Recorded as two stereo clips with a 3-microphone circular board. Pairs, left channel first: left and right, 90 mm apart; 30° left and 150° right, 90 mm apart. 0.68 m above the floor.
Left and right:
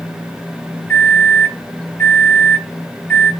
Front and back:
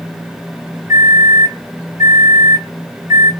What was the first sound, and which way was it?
A microwave, 165° left.